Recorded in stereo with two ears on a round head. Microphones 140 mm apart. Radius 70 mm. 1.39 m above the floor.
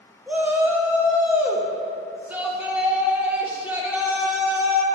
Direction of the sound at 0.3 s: 10° right (ahead or behind).